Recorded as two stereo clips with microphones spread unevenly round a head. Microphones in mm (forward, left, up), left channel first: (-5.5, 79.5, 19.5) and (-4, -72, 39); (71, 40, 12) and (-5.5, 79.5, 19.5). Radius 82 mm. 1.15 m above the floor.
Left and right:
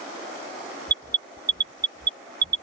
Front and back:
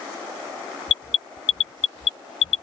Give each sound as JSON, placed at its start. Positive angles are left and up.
{"t": 0.9, "sound": "an alarm", "azimuth_deg": -25}